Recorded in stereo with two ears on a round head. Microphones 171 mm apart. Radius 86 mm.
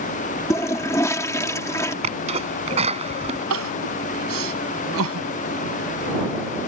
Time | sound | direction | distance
0.5 | a toilet flushing | 15° left (ahead or behind) | ?
2.0 | a sneeze | 30° right (ahead or behind) | ?
3.5 | crying | 80° right | ?